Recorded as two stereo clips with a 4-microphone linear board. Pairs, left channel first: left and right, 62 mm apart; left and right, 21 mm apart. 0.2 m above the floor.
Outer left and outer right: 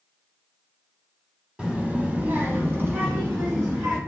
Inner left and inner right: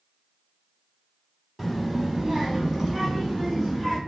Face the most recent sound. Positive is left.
turn(degrees=-35)  # may be behind; listen again after turning